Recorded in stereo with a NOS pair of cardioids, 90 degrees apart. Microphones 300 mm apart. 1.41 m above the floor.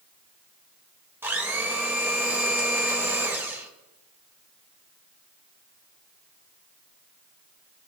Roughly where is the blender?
Ahead.